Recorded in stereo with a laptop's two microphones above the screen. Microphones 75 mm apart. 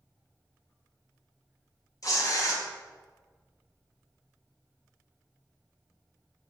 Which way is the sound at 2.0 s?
50° left (ahead or behind).